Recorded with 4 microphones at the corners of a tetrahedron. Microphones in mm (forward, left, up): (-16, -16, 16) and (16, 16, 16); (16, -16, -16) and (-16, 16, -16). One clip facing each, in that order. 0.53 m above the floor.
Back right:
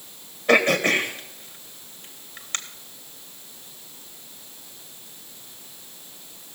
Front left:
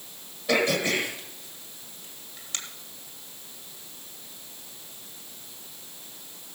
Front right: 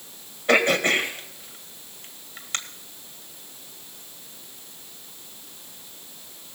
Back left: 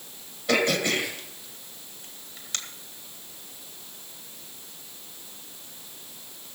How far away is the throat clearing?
About 1.6 m.